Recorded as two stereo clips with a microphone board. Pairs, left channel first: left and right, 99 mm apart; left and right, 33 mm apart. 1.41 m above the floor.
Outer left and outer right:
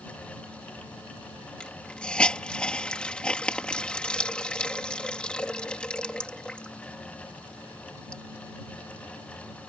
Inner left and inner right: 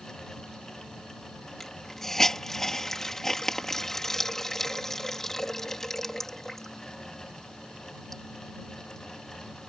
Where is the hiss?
10° left (ahead or behind).